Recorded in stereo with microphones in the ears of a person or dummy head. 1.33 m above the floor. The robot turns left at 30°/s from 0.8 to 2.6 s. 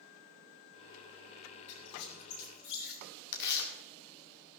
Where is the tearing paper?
65° left (ahead or behind), 2 m.